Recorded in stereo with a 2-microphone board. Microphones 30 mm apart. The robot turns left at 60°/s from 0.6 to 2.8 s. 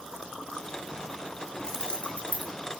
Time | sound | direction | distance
1.6 | keys jangling | 20° left (ahead or behind) | 2.5 m